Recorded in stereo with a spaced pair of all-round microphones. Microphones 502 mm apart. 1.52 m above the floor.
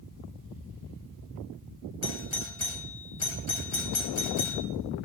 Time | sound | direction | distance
2.0 | a doorbell | 70° left (ahead or behind) | 1.4 m